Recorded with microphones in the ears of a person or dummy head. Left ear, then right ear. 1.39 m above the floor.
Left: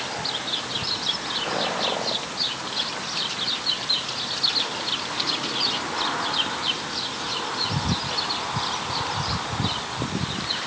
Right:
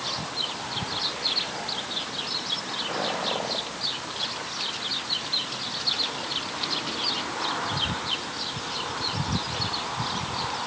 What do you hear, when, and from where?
Only background noise.